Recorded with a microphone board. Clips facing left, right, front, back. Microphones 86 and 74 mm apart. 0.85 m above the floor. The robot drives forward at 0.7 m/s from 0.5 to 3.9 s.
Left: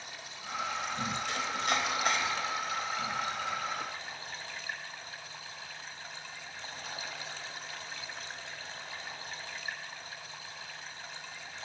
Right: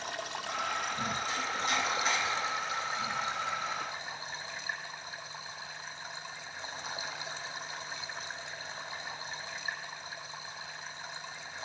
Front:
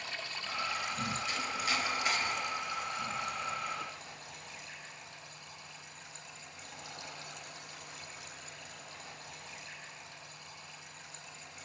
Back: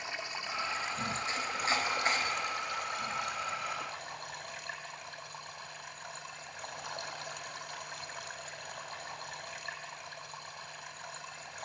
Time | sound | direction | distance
0.0 | running water | 110° right | 0.9 m
1.3 | chopping | 120° left | 4.5 m